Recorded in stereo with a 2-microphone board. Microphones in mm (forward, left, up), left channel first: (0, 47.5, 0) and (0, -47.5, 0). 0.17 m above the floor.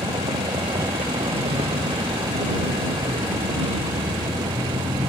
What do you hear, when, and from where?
0.0 s a vehicle: 85° right